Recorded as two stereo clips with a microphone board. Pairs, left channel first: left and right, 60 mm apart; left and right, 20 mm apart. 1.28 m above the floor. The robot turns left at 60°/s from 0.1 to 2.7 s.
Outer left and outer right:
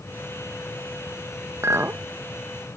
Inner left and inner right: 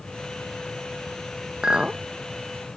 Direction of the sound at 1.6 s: 50° right (ahead or behind).